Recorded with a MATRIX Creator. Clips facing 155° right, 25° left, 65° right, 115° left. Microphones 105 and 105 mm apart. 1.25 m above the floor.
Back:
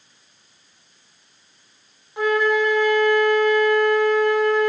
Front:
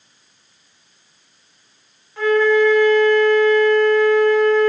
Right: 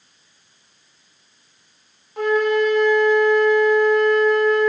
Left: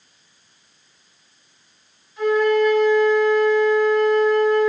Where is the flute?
85° right, 3 m.